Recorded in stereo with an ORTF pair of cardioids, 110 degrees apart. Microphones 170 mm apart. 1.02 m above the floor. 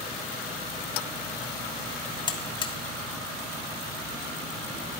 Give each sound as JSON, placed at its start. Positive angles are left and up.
{"t": 2.3, "sound": "a buzzer", "azimuth_deg": 25, "distance_m": 1.5}